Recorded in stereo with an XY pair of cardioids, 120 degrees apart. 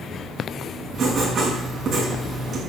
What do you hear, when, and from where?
0.9 s writing: 40° right, 6.5 m